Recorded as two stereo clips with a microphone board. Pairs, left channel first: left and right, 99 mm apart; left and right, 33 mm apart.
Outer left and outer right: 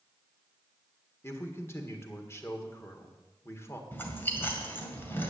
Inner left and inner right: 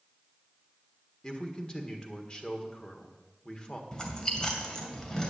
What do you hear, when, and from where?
1.2 s a man speaking: 25° left (ahead or behind), 1.6 m
3.9 s chewing: 20° left (ahead or behind), 2 m